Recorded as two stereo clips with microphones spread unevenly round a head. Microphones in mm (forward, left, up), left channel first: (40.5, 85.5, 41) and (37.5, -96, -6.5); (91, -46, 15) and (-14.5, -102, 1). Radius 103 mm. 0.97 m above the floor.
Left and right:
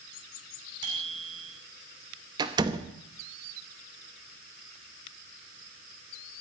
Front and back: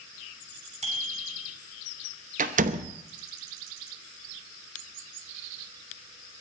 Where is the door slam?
160° right, 0.7 m.